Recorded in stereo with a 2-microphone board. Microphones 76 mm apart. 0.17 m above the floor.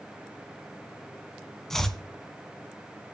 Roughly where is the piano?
I don't hear a piano.